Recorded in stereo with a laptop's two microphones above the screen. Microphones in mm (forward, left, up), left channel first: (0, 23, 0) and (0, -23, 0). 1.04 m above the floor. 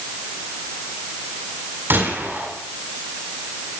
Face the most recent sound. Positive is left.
turn(degrees=-55)  # may be behind; listen again after turning